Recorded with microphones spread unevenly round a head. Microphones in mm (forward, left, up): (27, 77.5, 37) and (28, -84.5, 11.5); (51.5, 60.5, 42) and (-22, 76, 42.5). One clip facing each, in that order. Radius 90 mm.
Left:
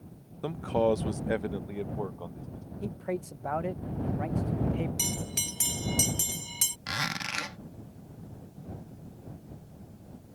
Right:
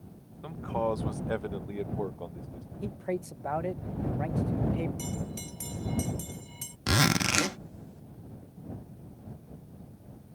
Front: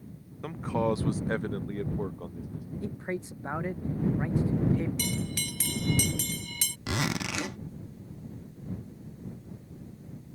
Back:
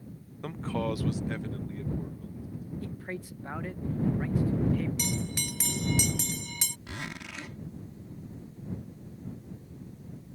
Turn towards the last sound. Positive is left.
turn(degrees=-55)